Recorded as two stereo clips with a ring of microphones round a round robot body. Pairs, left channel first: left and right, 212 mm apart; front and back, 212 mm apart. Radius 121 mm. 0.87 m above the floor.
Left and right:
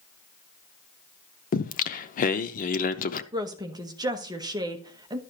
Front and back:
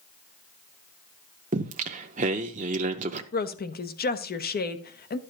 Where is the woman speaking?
25° right, 1.0 m.